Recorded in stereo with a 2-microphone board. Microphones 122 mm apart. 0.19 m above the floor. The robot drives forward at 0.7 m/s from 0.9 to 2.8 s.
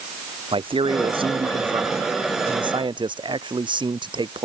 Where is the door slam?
No door slam in this recording.